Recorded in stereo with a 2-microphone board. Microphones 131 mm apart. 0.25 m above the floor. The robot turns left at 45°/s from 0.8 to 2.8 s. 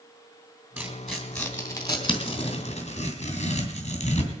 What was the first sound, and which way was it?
Tearing paper, 15° right (ahead or behind).